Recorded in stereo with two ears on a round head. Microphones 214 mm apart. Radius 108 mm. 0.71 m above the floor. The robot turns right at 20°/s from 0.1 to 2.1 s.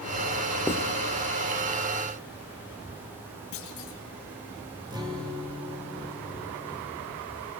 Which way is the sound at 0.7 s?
10° left (ahead or behind).